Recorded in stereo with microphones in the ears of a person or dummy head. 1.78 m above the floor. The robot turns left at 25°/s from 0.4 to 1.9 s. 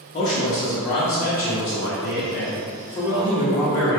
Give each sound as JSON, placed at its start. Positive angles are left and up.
{"t": 0.1, "sound": "a man speaking", "side_deg": 25, "distance_m": 0.7}